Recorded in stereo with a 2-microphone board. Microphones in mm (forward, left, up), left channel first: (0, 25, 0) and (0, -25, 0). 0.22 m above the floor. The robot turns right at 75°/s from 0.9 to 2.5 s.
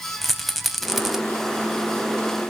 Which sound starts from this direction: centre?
A rattle, at 0.2 s.